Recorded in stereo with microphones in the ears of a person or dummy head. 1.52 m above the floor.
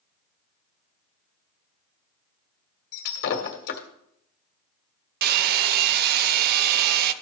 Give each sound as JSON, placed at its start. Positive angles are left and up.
{"t": 2.9, "sound": "breaking glass", "side_deg": 50, "distance_m": 1.7}
{"t": 5.2, "sound": "a hair dryer", "side_deg": -60, "distance_m": 0.7}